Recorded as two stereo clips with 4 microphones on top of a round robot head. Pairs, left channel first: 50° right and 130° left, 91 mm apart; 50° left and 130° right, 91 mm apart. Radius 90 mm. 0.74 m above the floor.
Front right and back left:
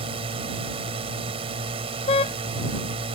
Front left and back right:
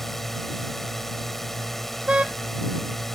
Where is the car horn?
50° right.